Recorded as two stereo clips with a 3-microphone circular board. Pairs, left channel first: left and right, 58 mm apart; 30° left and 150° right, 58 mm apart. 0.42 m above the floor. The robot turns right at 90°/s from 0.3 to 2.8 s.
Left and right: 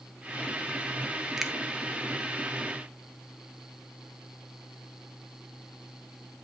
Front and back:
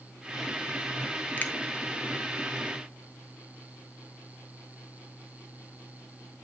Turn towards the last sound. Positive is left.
turn(degrees=115)